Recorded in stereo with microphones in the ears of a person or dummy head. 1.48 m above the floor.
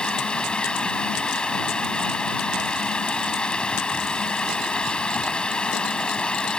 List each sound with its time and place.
0.0 s running water: centre (ahead or behind)